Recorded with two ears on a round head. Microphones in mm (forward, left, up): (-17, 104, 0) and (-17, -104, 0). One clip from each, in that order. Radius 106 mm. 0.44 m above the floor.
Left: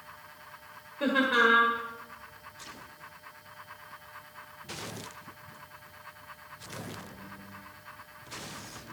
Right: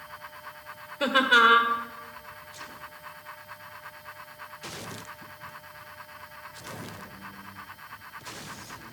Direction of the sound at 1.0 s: 40° right (ahead or behind).